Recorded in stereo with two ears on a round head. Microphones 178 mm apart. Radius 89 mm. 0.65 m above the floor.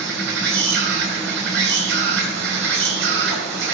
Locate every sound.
0.0 s an insect: 60° right (ahead or behind), 4.5 m